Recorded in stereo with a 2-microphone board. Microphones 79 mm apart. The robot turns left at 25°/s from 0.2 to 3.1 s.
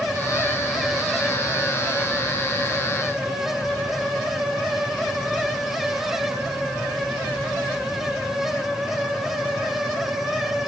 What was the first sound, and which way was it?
Only background noise.